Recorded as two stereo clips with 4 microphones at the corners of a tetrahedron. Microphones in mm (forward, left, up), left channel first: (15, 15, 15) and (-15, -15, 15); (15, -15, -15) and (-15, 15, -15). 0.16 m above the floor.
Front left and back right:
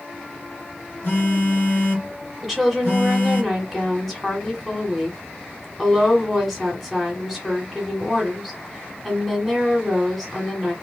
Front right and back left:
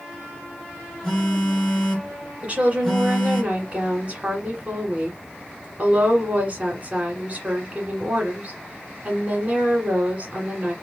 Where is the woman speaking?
140° left, 1.4 m.